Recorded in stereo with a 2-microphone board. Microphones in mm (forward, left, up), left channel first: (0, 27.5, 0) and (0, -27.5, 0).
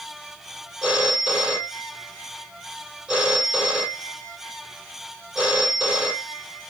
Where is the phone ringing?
20° right (ahead or behind), 2 m.